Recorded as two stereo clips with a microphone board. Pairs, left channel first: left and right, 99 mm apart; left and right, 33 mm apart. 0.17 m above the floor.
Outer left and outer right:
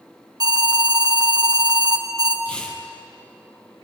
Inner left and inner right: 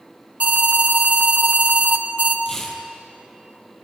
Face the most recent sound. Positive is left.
turn(degrees=10)  # may be behind; listen again after turning